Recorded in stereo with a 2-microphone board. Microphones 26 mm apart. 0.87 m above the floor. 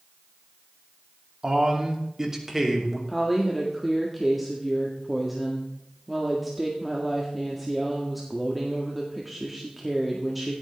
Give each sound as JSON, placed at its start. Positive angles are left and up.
{"t": 1.4, "sound": "a man speaking", "side_deg": -30, "distance_m": 2.5}
{"t": 3.1, "sound": "a woman speaking", "side_deg": -5, "distance_m": 1.7}